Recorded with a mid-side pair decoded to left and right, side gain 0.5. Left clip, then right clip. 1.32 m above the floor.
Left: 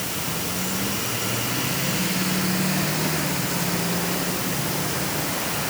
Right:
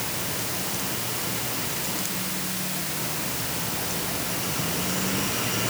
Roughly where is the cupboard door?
I don't hear a cupboard door.